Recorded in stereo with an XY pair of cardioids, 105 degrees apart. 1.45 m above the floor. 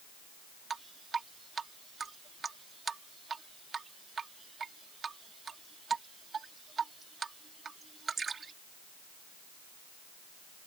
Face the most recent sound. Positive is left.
turn(degrees=-35)